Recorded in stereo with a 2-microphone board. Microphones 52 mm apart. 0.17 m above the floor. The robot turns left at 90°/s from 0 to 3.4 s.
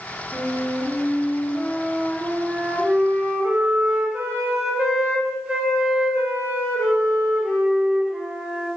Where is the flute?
140° left, 0.8 m; by 8.7 s 135° right, 0.8 m.